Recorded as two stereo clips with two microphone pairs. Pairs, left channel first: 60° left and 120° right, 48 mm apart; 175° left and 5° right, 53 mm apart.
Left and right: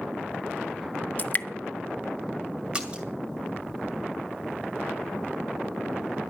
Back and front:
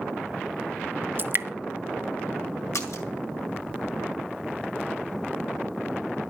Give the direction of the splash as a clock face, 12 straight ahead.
6 o'clock.